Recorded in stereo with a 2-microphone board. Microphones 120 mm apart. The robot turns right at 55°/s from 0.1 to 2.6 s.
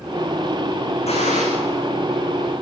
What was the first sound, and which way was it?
A gunshot, 60° left (ahead or behind).